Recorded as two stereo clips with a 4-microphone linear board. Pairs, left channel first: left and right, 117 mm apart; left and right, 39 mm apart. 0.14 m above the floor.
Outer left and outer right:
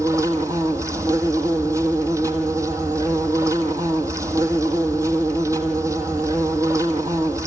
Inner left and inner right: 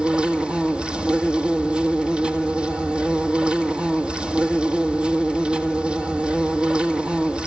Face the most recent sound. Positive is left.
turn(degrees=-25)  # may be behind; listen again after turning